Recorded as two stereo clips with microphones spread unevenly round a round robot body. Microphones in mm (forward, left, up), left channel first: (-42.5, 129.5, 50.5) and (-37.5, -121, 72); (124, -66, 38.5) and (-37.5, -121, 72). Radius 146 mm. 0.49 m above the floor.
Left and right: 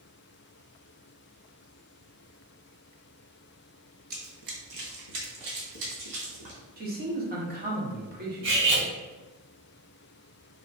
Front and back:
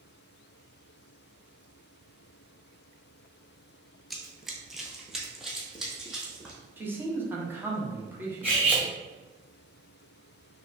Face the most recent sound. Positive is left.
turn(degrees=-75)